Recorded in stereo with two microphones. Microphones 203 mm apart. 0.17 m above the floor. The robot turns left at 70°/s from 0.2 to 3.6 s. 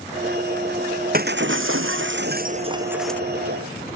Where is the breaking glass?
45° right; by 3.2 s 170° left.